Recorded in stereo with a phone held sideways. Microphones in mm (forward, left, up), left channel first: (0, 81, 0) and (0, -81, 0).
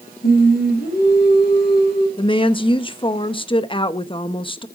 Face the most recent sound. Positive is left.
turn(degrees=30)  # may be behind; listen again after turning